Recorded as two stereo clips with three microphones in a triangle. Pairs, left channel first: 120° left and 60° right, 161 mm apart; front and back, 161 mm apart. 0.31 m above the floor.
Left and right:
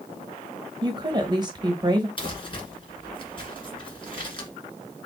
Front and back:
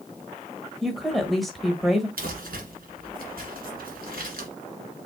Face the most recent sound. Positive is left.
turn(degrees=175)